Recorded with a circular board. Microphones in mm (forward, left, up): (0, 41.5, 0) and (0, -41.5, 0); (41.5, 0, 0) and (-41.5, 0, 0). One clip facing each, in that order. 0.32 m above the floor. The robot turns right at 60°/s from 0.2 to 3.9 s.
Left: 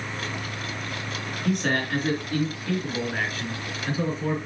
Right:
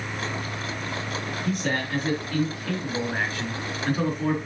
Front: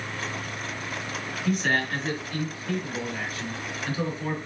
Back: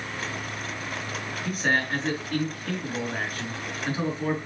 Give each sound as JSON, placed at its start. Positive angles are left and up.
{"t": 1.4, "sound": "a man speaking", "azimuth_deg": 90, "distance_m": 4.5}